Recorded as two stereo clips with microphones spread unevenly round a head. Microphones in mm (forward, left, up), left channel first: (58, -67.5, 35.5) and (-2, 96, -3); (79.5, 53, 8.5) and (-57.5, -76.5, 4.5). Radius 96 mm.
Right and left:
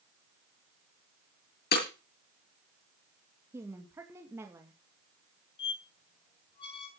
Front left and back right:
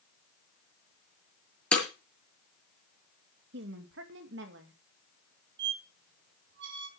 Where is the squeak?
120° right, 2.5 m.